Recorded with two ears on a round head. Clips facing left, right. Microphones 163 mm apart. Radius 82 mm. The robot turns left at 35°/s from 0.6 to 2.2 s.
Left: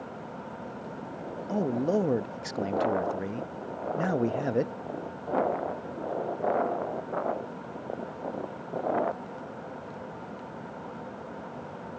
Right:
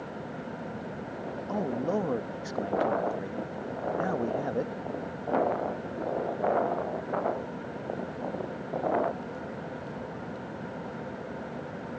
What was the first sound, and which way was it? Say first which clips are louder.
A man speaking: left 3 dB; 20° left (ahead or behind).